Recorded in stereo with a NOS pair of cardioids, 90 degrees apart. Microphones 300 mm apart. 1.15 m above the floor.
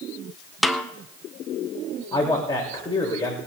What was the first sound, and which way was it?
A snare drum, straight ahead.